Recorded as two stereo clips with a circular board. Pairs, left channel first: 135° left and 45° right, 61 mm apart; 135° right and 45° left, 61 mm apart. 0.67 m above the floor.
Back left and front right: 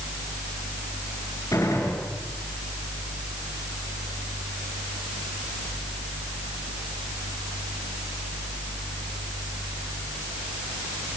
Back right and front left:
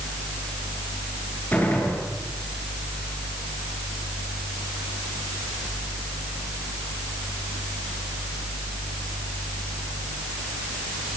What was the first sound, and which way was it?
A gunshot, 165° left.